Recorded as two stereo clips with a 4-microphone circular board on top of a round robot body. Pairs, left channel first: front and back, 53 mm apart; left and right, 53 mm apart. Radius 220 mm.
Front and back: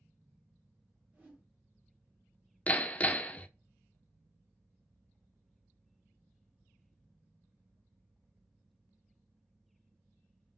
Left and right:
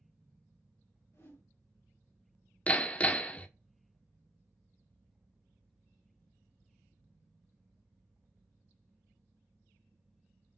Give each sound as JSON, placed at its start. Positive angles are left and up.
{"t": 1.1, "sound": "a whoosh", "azimuth_deg": 115, "distance_m": 3.0}
{"t": 2.7, "sound": "hammering", "azimuth_deg": 45, "distance_m": 0.7}